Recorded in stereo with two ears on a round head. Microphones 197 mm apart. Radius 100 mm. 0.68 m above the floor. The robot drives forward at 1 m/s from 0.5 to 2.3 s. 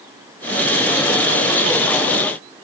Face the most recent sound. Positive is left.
No sound to turn to.